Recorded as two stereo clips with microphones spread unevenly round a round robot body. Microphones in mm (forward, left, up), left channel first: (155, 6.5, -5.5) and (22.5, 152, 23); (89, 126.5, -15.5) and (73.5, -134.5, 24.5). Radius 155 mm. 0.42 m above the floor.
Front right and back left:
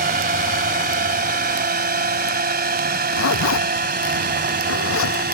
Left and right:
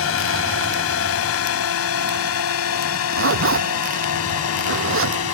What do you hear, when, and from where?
0.0 s a drone: 100° left
2.9 s a zipper: 60° right